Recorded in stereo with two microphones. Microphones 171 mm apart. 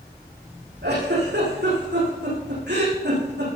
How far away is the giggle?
About 8.5 m.